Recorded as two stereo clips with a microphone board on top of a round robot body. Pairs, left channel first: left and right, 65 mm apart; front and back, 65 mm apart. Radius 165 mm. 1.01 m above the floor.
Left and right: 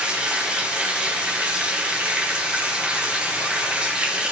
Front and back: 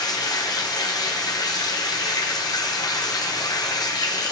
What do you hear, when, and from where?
0.0 s running water: 15° right, 0.8 m